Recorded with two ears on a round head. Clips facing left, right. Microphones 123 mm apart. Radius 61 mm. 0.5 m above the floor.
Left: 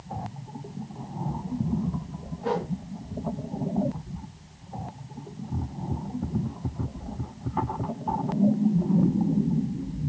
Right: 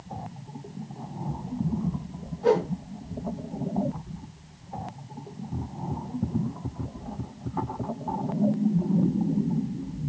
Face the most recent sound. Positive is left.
turn(degrees=-70)  # may be behind; listen again after turning